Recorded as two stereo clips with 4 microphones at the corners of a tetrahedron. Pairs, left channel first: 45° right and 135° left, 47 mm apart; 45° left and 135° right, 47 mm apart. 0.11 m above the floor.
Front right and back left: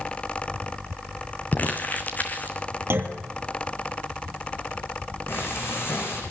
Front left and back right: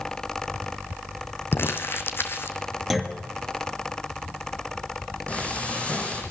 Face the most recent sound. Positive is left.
turn(degrees=-15)